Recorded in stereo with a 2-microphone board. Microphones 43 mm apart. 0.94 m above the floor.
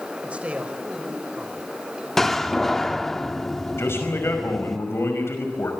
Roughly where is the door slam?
Centre.